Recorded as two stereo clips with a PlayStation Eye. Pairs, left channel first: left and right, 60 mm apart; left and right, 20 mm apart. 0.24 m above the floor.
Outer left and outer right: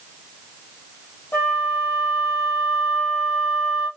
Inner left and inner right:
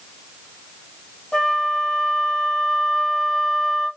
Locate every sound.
1.3 s a flute: 40° left (ahead or behind), 2.5 m